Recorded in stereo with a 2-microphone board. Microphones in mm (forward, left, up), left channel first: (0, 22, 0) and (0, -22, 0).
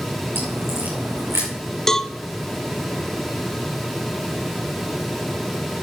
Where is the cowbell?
10° left (ahead or behind), 0.7 m.